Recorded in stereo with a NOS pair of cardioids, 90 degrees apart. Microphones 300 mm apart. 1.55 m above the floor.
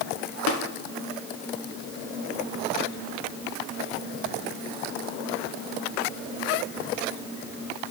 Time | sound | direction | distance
0.5 | tapping | 60° left | 1.5 m